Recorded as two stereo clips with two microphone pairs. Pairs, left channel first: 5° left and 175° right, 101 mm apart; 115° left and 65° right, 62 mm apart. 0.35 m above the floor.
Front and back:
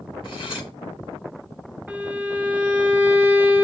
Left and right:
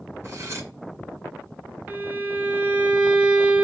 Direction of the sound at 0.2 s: 30° right.